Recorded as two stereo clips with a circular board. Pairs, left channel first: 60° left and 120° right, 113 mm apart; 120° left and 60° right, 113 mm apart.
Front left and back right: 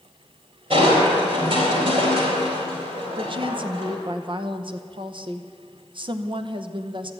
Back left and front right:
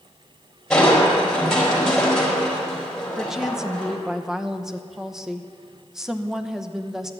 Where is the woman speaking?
145° right, 0.8 m.